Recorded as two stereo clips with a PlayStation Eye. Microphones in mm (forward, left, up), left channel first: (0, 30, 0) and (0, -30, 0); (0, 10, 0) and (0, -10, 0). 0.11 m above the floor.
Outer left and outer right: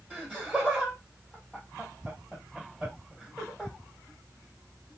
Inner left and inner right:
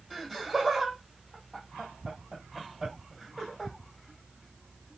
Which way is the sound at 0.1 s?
25° right (ahead or behind).